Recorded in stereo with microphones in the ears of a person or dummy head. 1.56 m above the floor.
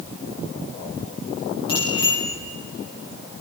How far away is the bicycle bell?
About 5.5 m.